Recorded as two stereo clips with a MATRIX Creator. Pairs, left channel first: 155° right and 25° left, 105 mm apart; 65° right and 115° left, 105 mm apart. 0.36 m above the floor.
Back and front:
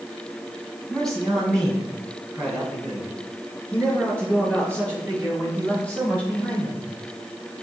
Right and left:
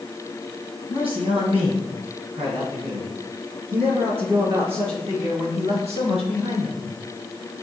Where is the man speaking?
115° left, 3 m; by 6.9 s 125° left, 6.5 m.